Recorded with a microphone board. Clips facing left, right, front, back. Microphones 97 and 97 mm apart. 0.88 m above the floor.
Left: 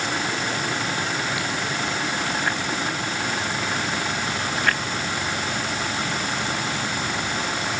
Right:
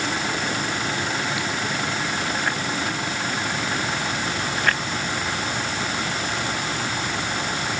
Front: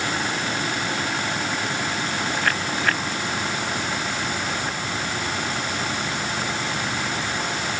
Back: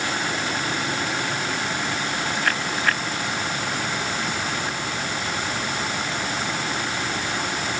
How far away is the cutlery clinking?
I don't hear cutlery clinking.